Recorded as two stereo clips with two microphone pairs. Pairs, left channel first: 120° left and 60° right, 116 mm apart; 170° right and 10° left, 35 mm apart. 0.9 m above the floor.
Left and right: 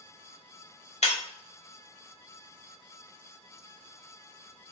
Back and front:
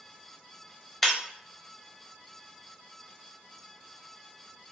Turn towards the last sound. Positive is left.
turn(degrees=100)